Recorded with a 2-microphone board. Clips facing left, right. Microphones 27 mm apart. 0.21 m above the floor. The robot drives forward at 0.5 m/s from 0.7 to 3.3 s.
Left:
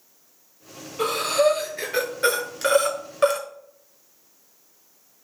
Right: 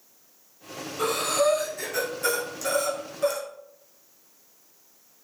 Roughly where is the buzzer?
I don't hear a buzzer.